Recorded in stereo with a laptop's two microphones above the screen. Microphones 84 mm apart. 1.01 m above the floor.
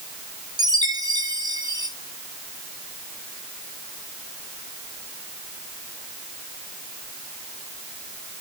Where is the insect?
I don't hear an insect.